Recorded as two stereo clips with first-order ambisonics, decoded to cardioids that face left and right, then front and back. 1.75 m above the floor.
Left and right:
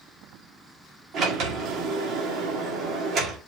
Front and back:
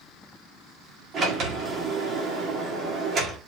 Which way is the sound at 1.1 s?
130° right.